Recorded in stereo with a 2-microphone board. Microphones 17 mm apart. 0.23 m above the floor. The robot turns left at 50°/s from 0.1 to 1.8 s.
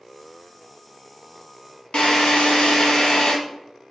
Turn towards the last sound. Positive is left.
turn(degrees=60)  # may be behind; listen again after turning